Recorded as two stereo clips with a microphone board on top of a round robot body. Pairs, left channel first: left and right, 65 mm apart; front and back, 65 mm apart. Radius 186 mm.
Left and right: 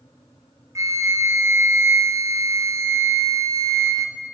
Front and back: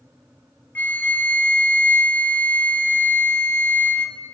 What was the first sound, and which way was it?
A flute, 60° right.